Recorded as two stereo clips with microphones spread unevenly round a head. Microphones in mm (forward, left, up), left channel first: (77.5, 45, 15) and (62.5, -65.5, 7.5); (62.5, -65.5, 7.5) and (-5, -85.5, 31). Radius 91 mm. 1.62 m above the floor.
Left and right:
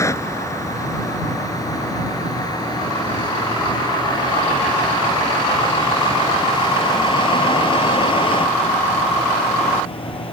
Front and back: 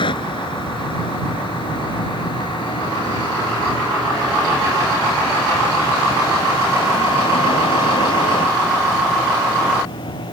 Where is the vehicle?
15° left; by 10.3 s 40° left.